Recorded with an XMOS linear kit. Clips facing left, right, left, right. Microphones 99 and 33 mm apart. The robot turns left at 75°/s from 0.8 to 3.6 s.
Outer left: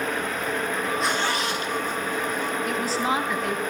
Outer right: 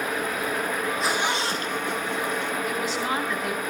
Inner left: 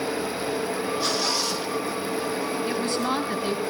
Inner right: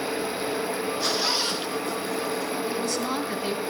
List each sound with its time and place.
1.0 s a zipper: centre (ahead or behind), 3.5 m; by 2.5 s 65° right (ahead or behind), 3.5 m
2.7 s a woman speaking: 60° left, 3.5 m; by 3.6 s 10° right, 3.5 m